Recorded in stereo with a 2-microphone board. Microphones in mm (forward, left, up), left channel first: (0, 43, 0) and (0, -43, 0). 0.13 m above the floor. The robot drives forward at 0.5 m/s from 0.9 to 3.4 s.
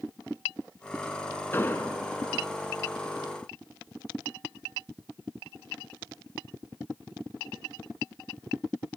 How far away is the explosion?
About 0.9 m.